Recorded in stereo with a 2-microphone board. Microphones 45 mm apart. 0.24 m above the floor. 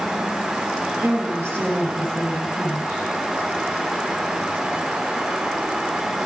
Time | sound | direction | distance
1.0 | a woman speaking | 65° right (ahead or behind) | 5 m